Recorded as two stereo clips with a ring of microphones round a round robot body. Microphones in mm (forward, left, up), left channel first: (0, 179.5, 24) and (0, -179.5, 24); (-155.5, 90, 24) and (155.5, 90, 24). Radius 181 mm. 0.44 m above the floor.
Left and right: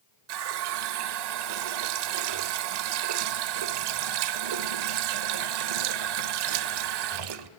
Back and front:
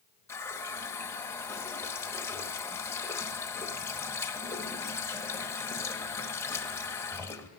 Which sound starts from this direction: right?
A running tap, at 0.3 s.